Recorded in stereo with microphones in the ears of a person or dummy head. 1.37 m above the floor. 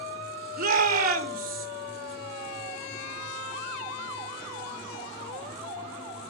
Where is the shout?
50° right (ahead or behind), 1.3 m.